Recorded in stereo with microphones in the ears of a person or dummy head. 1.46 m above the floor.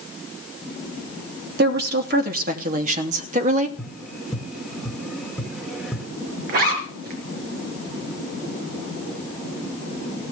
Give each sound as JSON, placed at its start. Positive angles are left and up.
{"t": 1.6, "sound": "a woman speaking", "side_deg": -60, "distance_m": 3.5}
{"t": 3.8, "sound": "tapping", "side_deg": 0, "distance_m": 2.0}
{"t": 6.5, "sound": "a zipper", "side_deg": -60, "distance_m": 4.5}